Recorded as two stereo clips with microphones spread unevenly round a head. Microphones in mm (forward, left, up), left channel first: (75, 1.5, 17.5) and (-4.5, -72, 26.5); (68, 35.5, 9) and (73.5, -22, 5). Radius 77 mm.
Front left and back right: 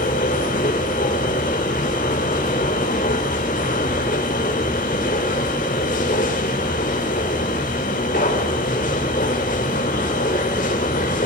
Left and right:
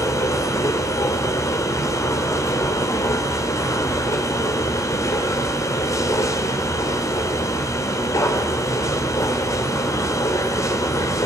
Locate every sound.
0.0 s a machine running: 80° left, 3 m